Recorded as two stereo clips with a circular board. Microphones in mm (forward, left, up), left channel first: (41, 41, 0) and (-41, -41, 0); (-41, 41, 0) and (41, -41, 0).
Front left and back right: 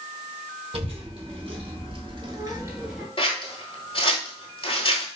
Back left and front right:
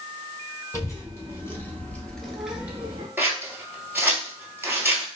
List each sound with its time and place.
0.7 s a child speaking: 165° right, 1.9 m; by 3.1 s 50° right, 0.7 m
3.2 s scissors: 25° left, 0.9 m